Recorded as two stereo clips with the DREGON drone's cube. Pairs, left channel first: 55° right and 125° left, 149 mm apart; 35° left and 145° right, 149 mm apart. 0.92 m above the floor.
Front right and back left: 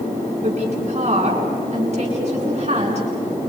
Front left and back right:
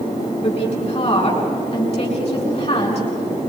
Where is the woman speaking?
80° left, 8 m.